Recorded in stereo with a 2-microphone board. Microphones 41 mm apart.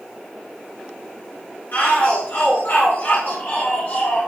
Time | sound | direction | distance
1.7 | a shout | 60° left (ahead or behind) | 2.5 m